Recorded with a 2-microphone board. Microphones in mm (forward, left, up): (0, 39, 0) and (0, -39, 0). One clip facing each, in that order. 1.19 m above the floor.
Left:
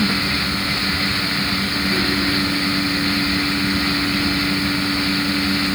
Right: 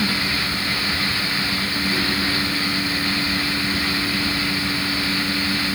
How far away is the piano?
I don't hear a piano.